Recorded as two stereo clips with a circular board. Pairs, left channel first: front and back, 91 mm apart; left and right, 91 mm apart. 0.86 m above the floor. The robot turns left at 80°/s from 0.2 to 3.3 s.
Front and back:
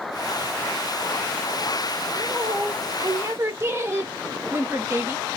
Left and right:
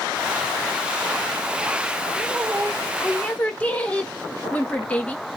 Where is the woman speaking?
120° right, 0.9 m; by 5.2 s 150° left, 0.9 m.